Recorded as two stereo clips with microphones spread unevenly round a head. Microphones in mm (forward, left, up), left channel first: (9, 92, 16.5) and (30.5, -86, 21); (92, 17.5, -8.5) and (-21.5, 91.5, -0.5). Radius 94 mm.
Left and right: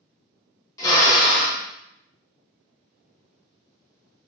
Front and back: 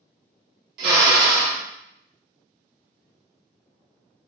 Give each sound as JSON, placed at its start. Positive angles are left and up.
{"t": 0.8, "sound": "a drill", "azimuth_deg": 170, "distance_m": 0.9}